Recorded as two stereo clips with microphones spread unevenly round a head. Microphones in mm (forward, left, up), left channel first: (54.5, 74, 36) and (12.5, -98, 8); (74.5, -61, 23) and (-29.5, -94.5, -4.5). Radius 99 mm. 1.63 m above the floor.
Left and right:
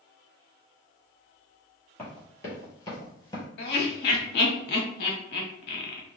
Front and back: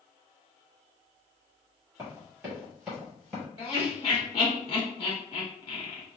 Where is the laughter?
65° left, 0.9 m.